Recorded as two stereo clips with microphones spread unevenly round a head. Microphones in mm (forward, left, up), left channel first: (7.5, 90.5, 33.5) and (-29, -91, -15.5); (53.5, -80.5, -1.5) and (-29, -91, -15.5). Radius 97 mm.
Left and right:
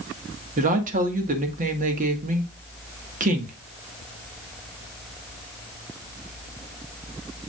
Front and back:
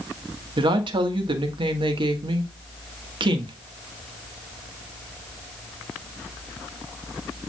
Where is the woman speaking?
150° right, 1.6 m.